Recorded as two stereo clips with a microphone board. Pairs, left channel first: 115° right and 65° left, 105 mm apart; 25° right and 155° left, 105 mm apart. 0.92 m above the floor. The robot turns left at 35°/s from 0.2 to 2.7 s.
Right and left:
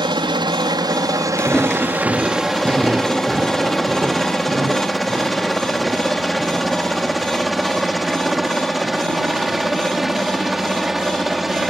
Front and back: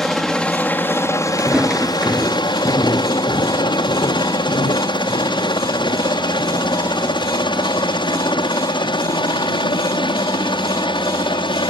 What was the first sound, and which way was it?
A helicopter, 60° left.